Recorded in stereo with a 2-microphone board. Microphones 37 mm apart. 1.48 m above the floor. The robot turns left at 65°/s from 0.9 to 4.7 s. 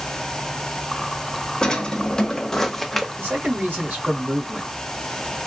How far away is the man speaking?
About 1.8 m.